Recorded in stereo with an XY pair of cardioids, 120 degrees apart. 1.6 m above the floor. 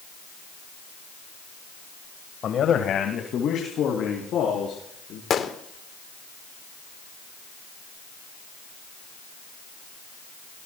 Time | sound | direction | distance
2.4 | a man speaking | 50° left | 1.5 m
5.3 | a gunshot | 45° left | 1.5 m